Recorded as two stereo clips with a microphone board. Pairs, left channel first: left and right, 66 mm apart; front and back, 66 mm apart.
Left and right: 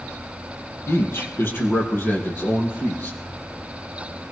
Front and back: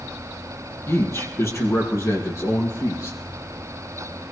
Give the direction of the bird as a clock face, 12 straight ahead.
No bird in this recording.